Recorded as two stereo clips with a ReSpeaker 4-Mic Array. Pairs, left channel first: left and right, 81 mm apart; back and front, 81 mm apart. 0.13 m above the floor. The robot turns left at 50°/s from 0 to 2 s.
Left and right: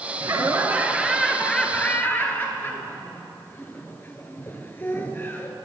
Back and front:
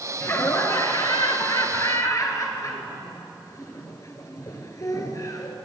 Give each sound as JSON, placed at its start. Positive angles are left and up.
{"t": 0.2, "sound": "laughter", "azimuth_deg": -125, "distance_m": 1.7}